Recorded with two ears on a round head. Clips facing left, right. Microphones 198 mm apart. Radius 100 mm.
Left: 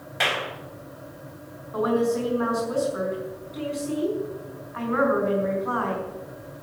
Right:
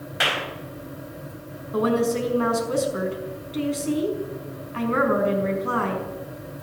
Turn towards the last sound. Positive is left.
turn(degrees=-40)  # may be behind; listen again after turning